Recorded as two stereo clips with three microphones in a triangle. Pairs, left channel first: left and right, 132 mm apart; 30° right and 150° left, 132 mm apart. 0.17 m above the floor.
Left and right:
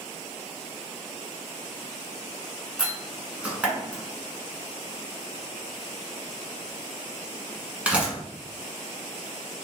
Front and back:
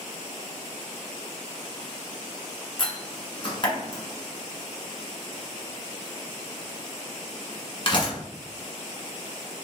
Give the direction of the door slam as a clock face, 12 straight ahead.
12 o'clock.